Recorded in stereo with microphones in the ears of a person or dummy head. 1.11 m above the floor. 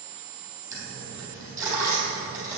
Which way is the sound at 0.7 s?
10° right (ahead or behind).